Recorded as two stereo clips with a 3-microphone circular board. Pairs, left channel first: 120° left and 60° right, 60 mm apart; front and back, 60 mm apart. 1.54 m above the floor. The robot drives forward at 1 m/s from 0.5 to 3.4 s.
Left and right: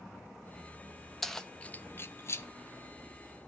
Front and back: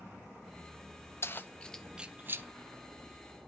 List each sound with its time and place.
1.2 s keys jangling: 35° left, 0.9 m; by 2.5 s 150° left, 0.9 m